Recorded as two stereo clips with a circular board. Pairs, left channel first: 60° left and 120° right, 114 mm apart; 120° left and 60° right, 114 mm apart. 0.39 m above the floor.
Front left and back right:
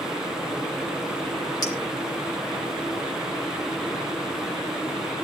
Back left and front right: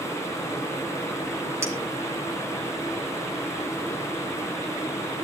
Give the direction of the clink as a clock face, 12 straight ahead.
12 o'clock.